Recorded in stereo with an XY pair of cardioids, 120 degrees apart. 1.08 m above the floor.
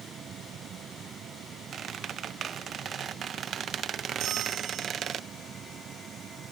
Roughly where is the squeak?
Ahead right.